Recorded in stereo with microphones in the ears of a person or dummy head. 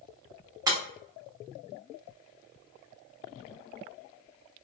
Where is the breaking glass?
15° right (ahead or behind), 1.1 m.